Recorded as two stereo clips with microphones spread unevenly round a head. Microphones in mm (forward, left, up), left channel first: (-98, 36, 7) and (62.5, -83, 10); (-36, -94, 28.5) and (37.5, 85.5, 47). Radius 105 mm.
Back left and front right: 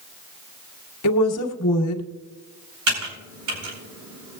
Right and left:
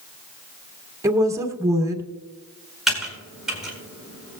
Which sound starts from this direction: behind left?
A woman speaking, at 1.0 s.